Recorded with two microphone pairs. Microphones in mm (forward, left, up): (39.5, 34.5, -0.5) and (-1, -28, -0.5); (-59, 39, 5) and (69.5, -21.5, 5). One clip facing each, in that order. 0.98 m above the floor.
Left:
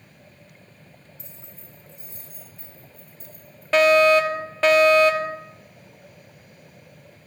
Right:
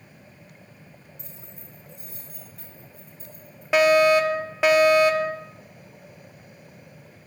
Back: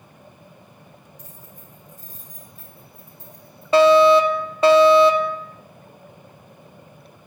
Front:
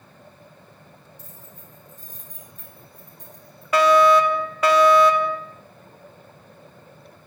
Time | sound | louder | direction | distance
1.2 | keys jangling | right 1 dB, back 1 dB | 130° right | 8 m
3.7 | a fire alarm | left 1 dB, back 3 dB | 170° left | 1.2 m